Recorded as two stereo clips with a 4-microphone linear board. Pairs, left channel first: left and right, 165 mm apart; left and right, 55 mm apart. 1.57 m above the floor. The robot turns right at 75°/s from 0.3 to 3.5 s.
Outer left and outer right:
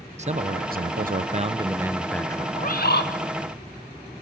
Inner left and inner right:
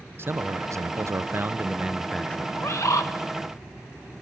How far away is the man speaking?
About 0.7 m.